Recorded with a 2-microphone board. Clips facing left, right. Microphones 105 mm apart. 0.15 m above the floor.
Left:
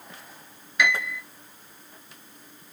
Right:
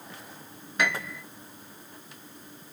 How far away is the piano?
About 0.7 m.